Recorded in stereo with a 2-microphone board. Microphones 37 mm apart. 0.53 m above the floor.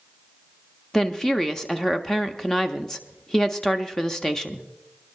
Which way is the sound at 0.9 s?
15° left (ahead or behind).